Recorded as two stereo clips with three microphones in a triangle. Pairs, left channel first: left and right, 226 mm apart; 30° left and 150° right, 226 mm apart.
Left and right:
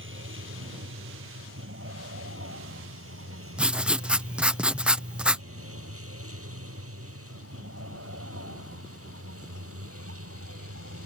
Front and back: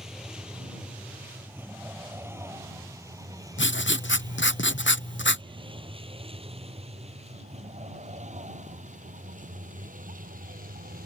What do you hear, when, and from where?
0.0 s a vehicle: 60° right; by 11.1 s 100° right
3.6 s writing: 5° right